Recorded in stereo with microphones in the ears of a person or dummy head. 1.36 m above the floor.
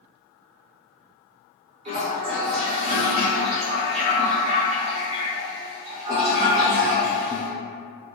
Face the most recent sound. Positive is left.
turn(degrees=-35)  # may be behind; listen again after turning